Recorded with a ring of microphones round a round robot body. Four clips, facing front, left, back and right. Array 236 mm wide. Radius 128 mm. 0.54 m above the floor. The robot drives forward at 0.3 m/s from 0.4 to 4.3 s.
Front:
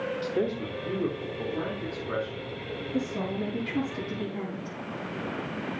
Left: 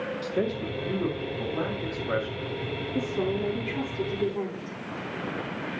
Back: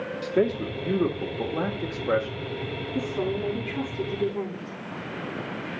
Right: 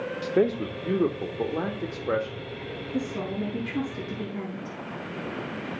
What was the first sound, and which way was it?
A man speaking, 115° right.